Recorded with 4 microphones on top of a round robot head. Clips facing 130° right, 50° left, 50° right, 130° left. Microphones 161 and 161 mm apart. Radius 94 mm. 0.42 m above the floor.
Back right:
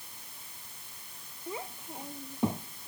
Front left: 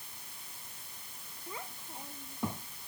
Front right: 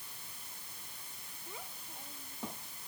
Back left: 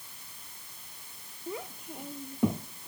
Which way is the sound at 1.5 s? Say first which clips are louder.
Back right 6 dB, back left 12 dB; 160° left.